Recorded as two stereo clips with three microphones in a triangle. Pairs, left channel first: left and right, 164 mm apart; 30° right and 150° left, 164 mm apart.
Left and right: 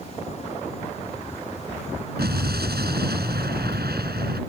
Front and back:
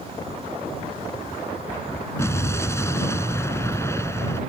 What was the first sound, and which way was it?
An explosion, 105° right.